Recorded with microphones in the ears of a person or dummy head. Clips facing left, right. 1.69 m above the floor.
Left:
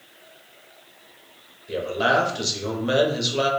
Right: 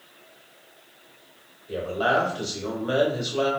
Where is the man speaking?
30° left (ahead or behind), 0.7 m.